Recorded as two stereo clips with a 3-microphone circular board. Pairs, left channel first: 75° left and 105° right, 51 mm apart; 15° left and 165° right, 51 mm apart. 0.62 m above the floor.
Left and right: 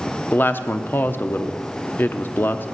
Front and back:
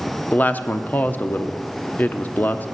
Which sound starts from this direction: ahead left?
A woman speaking, at 0.3 s.